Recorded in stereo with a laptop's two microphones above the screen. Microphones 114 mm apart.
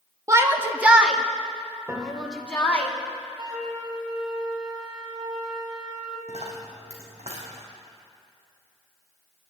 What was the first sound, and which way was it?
A shout, 25° right (ahead or behind).